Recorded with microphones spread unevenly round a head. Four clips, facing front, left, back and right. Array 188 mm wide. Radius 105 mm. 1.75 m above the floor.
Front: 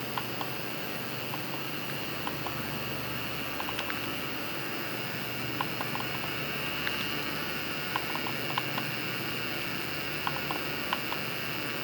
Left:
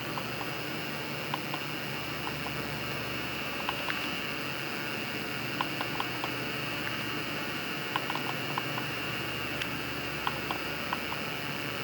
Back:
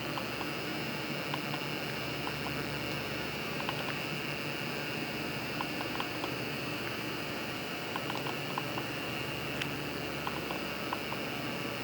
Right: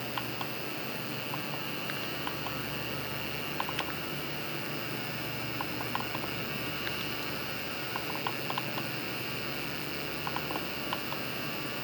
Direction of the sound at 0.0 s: 20° left.